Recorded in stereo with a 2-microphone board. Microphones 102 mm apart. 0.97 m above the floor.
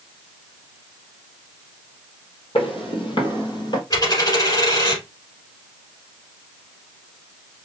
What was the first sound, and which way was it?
Footsteps, 60° left (ahead or behind).